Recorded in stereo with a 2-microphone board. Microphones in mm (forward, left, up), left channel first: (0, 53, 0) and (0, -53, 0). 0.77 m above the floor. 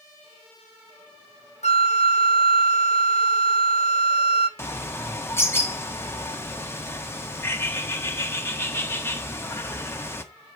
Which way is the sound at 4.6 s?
20° left (ahead or behind).